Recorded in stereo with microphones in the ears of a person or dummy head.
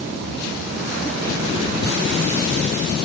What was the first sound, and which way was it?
Only background noise.